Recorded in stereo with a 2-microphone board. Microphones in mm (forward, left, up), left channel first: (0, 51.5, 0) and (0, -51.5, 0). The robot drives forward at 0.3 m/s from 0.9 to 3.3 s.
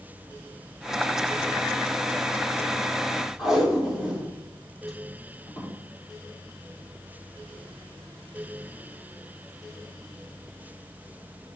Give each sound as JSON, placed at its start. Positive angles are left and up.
{"t": 3.4, "sound": "tape being pulled", "side_deg": 0, "distance_m": 4.0}